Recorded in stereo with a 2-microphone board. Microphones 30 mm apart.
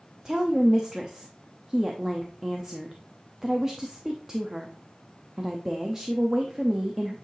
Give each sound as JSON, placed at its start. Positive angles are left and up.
{"t": 0.2, "sound": "a woman speaking", "side_deg": -20, "distance_m": 0.8}